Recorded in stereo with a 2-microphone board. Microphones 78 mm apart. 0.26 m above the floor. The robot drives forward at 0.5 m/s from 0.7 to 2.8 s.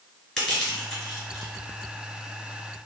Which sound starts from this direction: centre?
Crushing, at 0.4 s.